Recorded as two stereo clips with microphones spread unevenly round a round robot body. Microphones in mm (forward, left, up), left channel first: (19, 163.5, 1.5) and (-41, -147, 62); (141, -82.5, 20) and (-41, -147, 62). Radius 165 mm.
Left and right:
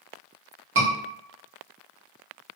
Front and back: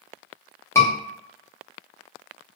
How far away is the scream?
About 1.3 m.